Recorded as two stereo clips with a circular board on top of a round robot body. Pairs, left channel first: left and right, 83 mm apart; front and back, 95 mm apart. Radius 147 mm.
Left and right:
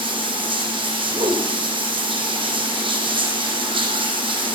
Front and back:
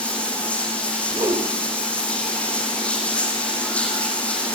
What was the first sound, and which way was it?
Running water, 75° right.